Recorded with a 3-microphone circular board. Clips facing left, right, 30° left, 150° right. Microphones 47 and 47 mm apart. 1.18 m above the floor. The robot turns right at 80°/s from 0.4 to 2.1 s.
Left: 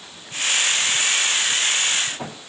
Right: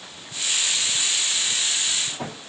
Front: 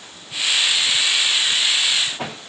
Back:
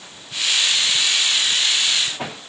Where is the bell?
I don't hear a bell.